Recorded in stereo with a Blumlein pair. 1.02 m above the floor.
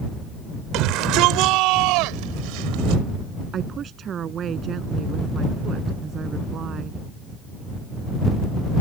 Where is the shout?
40° right; by 3.0 s 45° right.